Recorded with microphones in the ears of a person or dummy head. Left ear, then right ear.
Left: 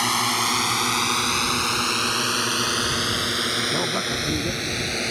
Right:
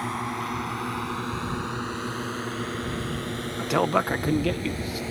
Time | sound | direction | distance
0.0 | a drone | 80° left | ?
3.6 | a man speaking | 85° right | ?